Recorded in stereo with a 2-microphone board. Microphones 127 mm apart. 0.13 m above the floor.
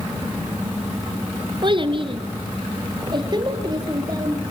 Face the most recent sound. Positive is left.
turn(degrees=-30)  # may be behind; listen again after turning